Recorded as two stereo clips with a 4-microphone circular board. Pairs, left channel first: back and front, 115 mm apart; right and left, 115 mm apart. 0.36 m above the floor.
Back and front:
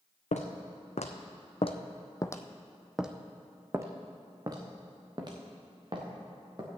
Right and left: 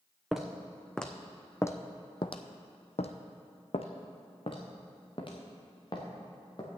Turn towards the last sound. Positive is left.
turn(degrees=-45)